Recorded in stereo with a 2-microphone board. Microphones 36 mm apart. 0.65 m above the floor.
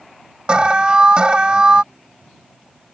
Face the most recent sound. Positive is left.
turn(degrees=-30)  # may be behind; listen again after turning